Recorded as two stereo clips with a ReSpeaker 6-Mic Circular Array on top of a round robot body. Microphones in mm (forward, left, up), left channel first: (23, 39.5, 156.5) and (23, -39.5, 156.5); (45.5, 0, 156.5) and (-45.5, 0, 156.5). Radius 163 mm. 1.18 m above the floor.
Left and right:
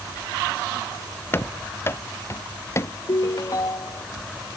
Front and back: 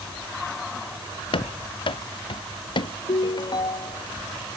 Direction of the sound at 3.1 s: 40° left.